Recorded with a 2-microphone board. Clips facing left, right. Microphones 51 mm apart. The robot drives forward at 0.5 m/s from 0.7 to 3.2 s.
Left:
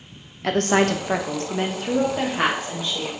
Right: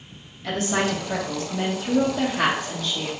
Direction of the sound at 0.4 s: 55° left (ahead or behind).